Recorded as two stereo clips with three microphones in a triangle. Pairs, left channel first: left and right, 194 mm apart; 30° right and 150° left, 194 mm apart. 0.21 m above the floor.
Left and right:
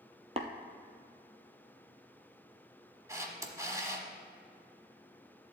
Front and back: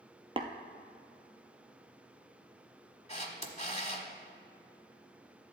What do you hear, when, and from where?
0.4 s tapping: 145° right, 0.8 m
3.1 s a camera shutter: 30° right, 1.1 m